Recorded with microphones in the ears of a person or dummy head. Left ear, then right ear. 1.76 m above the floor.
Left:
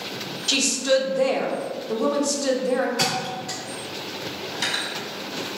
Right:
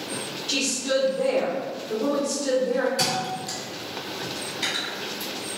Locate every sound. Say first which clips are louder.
0.5 s a woman speaking: left 4 dB; 65° left (ahead or behind), 0.8 m
3.0 s a thud: left 1 dB; 20° right (ahead or behind), 1.8 m
4.5 s cutlery clinking: left 2 dB; 55° left (ahead or behind), 1.5 m